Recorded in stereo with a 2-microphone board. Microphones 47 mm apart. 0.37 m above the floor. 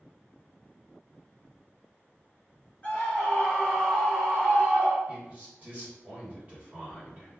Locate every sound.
2.8 s a scream: 30° left (ahead or behind), 1.3 m; by 5.0 s 20° right (ahead or behind), 1.1 m
5.1 s a man speaking: 35° right (ahead or behind), 1.7 m